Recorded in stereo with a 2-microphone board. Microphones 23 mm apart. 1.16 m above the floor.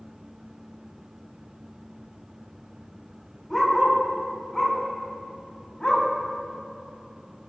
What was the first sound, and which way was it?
A dog barking, 10° left (ahead or behind).